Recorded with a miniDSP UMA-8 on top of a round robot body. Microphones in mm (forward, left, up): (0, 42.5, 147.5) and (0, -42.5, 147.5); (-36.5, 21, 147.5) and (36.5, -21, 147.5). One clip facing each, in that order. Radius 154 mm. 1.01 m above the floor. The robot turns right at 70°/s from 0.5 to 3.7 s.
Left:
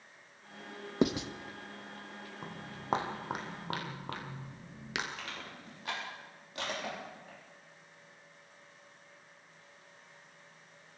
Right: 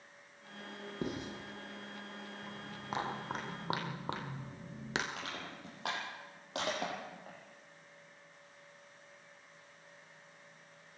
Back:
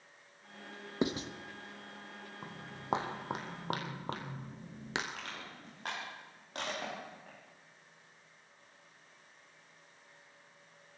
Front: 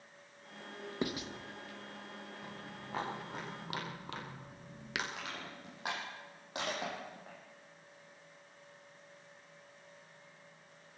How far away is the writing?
About 1.1 m.